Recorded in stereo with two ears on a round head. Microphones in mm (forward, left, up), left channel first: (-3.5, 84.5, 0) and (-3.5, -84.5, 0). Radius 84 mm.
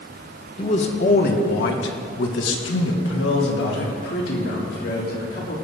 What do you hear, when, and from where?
0.6 s a man speaking: 30° left (ahead or behind), 1.4 m; by 5.5 s 55° left (ahead or behind), 3.5 m